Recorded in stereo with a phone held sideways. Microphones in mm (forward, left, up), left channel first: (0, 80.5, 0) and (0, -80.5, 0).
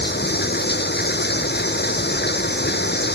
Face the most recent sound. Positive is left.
turn(degrees=80)